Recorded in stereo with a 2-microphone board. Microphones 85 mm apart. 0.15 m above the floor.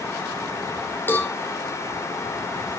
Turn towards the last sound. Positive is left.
turn(degrees=25)  # may be behind; listen again after turning